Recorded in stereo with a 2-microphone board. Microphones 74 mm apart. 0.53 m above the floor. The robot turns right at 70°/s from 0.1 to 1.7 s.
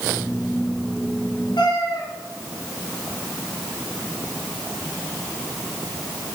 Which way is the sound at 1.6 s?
75° left (ahead or behind).